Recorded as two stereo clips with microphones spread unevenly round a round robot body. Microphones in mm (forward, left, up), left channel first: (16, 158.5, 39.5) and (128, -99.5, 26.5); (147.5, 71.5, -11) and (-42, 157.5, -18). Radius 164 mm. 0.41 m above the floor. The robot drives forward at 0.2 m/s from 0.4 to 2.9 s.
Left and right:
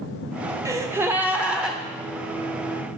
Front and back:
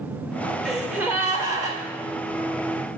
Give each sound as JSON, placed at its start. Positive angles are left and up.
{"t": 0.7, "sound": "a gasp", "azimuth_deg": -120, "distance_m": 0.7}